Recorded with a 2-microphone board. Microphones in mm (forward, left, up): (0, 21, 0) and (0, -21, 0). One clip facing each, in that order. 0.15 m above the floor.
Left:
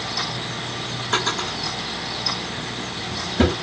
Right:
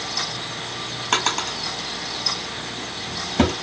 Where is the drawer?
75° right (ahead or behind), 1.0 m.